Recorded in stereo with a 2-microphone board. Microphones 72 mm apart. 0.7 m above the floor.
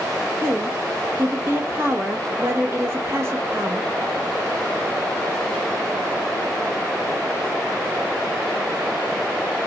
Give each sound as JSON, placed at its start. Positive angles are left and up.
{"t": 0.4, "sound": "a woman speaking", "side_deg": -35, "distance_m": 1.1}